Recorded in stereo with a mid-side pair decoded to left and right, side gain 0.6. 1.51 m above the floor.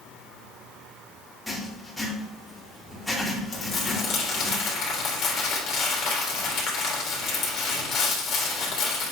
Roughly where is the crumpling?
Ahead left.